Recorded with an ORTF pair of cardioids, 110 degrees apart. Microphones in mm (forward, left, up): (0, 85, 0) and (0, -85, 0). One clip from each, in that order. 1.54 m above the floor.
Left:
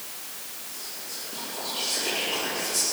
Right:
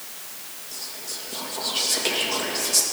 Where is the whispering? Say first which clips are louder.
Right 5 dB; 65° right, 2.5 m.